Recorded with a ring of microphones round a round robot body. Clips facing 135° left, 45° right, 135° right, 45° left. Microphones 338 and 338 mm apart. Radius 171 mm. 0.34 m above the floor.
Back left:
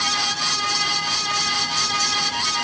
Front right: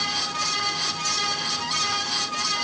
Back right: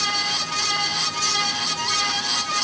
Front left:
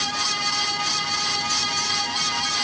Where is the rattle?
No rattle in this recording.